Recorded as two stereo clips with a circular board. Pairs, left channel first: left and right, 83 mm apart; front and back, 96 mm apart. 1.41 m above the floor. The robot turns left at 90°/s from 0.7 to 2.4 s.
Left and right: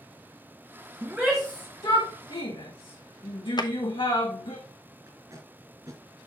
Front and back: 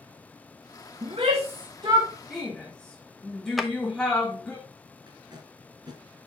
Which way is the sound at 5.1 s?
140° right.